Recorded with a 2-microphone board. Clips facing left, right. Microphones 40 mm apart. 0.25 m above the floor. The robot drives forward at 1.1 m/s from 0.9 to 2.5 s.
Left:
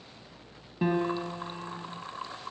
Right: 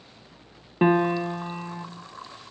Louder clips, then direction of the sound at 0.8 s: Right 7 dB; 45° right (ahead or behind).